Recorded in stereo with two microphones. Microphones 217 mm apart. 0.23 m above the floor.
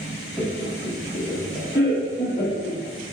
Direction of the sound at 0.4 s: Centre (ahead or behind).